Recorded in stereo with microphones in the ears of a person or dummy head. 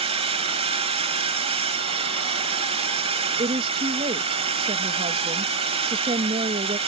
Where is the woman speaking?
25° right (ahead or behind).